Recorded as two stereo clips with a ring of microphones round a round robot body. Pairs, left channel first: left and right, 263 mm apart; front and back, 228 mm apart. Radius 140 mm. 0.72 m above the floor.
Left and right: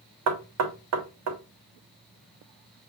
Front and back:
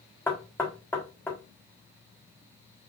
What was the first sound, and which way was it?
Knocking, 80° right.